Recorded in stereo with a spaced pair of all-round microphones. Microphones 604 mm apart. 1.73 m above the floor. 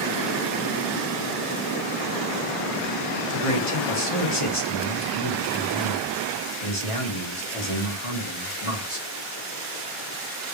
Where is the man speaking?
55° left (ahead or behind), 1.8 m.